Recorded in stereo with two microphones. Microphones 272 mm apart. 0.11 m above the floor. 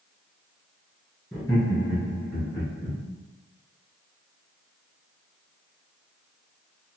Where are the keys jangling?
No keys jangling in this recording.